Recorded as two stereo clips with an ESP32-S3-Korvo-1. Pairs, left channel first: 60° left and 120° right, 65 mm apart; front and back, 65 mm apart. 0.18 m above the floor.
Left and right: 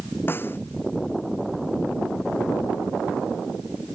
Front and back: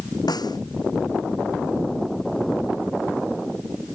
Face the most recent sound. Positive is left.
turn(degrees=5)